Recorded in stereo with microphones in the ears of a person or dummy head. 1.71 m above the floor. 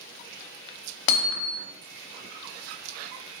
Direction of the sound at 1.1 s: 65° left (ahead or behind).